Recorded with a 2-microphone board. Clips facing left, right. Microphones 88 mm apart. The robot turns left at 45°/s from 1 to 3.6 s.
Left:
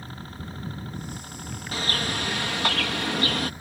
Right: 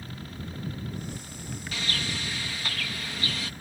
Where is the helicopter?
145° left; by 3.6 s 25° left.